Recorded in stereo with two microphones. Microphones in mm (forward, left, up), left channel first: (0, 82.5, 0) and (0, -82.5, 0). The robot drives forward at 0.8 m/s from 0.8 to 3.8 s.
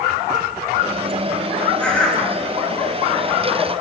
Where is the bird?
5° left (ahead or behind), 6 m.